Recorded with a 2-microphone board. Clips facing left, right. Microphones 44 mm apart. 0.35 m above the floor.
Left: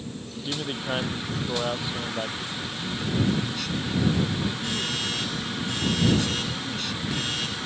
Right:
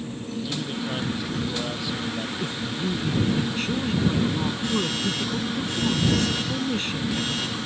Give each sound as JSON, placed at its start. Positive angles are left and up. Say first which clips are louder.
{"t": 0.5, "sound": "a man speaking", "louder": "left 2 dB", "side_deg": 30}
{"t": 2.4, "sound": "a man speaking", "louder": "right 4 dB", "side_deg": -40}